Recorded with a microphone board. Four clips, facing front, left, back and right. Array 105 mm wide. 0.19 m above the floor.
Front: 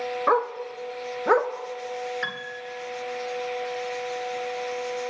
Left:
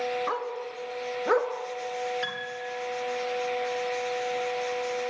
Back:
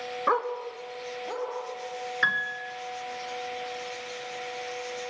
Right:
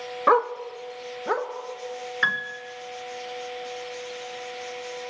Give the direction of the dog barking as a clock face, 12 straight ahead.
3 o'clock.